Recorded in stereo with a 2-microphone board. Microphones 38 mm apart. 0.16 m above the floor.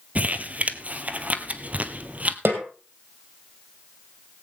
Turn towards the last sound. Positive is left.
turn(degrees=-80)